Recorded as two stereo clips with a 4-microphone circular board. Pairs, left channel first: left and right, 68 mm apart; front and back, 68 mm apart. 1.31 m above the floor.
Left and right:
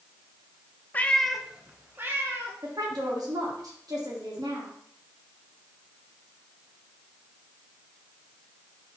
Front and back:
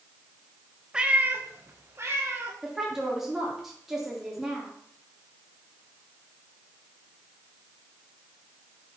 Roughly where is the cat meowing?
Behind left.